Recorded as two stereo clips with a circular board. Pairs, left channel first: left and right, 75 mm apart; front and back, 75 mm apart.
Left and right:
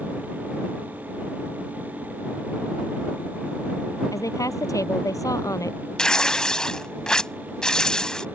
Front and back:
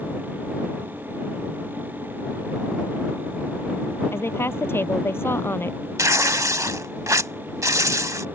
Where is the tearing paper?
165° left.